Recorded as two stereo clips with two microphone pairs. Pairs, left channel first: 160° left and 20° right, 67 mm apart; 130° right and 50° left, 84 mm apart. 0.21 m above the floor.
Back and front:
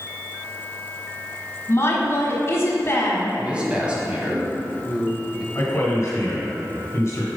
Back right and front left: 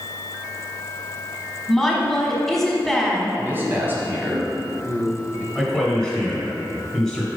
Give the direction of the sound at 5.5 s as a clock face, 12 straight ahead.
8 o'clock.